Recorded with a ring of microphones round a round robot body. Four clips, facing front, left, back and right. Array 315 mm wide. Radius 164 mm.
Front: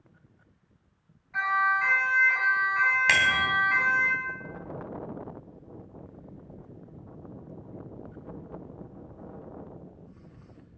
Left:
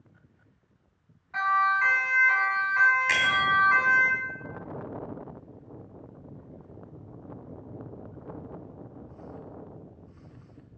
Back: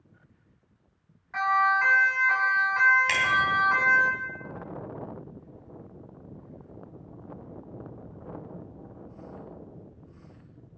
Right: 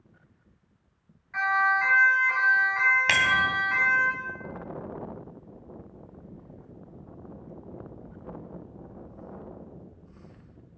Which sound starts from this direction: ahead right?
A bicycle bell, at 3.1 s.